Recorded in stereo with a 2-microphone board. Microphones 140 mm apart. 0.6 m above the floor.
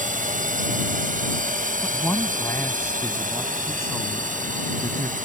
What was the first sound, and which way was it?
A drone, 65° right (ahead or behind).